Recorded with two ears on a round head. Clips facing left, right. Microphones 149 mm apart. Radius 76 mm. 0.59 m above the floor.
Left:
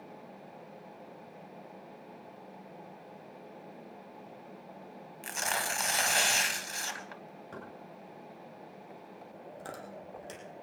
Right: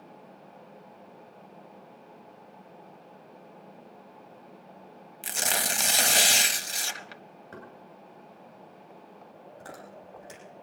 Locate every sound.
5.2 s tearing paper: 35° right (ahead or behind), 0.7 m
7.5 s knocking: 10° left (ahead or behind), 7.5 m
9.6 s chewing: 25° left (ahead or behind), 5.5 m